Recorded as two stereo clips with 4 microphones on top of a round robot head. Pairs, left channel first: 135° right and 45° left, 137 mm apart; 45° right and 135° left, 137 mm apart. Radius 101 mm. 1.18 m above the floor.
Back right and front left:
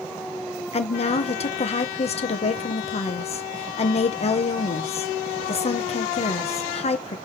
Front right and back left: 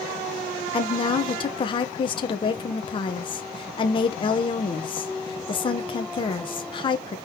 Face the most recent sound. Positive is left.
turn(degrees=-95)